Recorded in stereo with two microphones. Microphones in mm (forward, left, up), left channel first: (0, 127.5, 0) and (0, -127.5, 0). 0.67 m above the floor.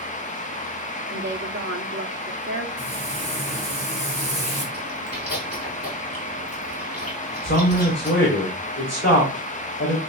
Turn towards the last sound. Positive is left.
turn(degrees=45)  # may be behind; listen again after turning